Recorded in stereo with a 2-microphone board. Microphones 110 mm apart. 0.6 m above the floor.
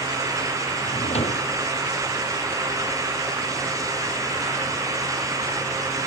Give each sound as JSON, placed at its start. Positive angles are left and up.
{"t": 0.8, "sound": "a drawer", "side_deg": 80}